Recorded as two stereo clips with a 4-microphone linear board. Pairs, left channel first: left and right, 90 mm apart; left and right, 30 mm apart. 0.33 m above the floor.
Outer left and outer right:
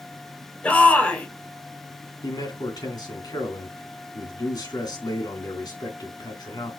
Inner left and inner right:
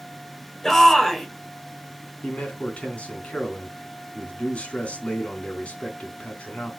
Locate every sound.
0.6 s a shout: 15° left (ahead or behind), 1.5 m
2.2 s a man speaking: 50° left (ahead or behind), 3 m